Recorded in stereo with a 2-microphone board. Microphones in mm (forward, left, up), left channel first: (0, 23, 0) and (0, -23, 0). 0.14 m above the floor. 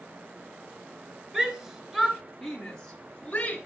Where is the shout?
15° right (ahead or behind), 2.5 m; by 3.6 s 30° left (ahead or behind), 2 m.